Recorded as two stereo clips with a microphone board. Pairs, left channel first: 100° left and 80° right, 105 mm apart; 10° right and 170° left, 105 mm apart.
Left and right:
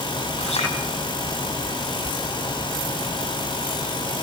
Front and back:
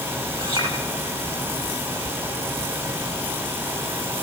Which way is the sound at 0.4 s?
125° left.